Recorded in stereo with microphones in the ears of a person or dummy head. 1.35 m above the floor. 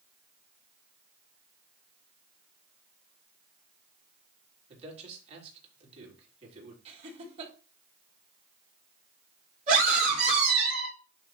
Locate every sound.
4.7 s a man speaking: 40° right (ahead or behind), 3.5 m
6.8 s laughter: 35° right (ahead or behind), 4.5 m
9.7 s a scream: 45° right (ahead or behind), 3.5 m